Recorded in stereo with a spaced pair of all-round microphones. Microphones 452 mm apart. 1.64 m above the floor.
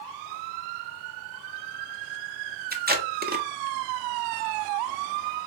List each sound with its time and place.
2.7 s tape being pulled: 20° right (ahead or behind), 0.6 m